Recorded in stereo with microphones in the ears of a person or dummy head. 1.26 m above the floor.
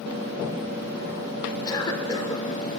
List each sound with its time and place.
1.6 s a cough: 15° left (ahead or behind), 3.5 m